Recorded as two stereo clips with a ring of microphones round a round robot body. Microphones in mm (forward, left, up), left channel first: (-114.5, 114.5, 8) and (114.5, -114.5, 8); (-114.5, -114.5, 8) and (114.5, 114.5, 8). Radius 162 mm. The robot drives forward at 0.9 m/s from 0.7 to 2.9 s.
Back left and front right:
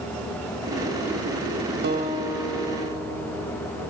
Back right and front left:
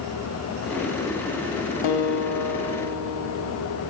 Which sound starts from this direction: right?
A guitar, at 1.8 s.